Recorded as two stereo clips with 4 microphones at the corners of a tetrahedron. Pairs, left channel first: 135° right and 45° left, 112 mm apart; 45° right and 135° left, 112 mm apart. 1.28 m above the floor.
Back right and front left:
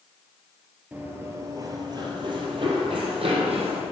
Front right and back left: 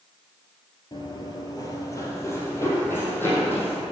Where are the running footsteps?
25° right, 1.7 m; by 3.8 s 25° left, 3.5 m.